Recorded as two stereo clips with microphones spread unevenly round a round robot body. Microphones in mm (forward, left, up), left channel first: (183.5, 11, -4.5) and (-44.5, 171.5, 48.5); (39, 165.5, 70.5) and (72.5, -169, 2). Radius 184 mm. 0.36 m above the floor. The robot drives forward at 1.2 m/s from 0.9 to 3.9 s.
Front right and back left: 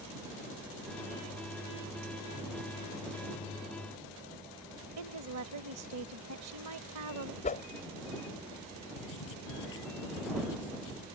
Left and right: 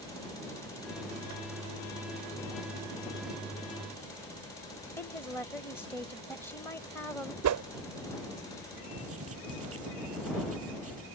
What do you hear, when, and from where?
5.0 s a woman speaking: 175° right
7.4 s a whoosh: 90° right
9.0 s writing: 30° right